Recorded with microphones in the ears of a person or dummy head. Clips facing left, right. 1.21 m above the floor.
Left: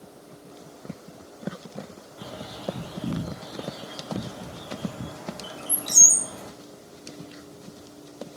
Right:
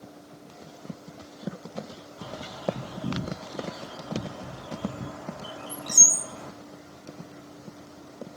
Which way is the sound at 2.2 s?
40° left (ahead or behind).